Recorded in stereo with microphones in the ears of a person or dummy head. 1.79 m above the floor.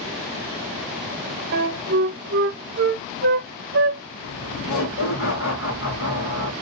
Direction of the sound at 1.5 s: 50° right (ahead or behind).